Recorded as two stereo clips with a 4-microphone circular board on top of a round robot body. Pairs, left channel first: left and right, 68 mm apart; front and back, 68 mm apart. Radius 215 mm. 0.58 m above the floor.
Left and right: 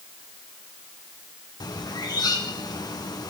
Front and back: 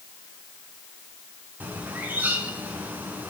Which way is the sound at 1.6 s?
115° left.